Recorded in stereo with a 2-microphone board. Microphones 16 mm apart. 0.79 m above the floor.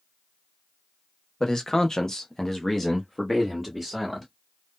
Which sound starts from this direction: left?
A man speaking, at 1.4 s.